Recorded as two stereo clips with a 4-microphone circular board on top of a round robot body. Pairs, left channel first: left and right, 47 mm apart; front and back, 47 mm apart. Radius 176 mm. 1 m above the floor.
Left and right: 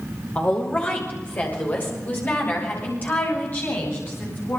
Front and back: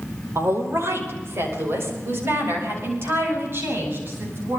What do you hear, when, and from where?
0.3 s a woman speaking: 150° left, 5 m; by 4.6 s 140° left, 10.5 m